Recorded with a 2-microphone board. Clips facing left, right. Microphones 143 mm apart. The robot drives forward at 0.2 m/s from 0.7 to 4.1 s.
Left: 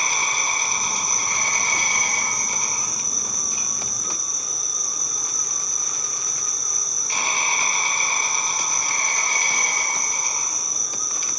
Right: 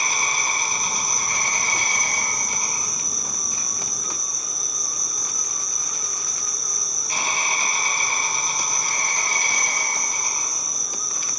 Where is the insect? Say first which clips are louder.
Even; 10° right (ahead or behind), 1.4 m; by 11.4 s 5° right (ahead or behind), 2 m.